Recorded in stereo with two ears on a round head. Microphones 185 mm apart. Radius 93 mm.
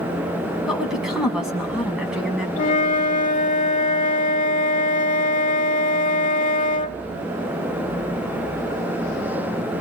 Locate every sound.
0.7 s a woman speaking: 5° right (ahead or behind), 6 m
2.6 s a flute: 40° left (ahead or behind), 0.9 m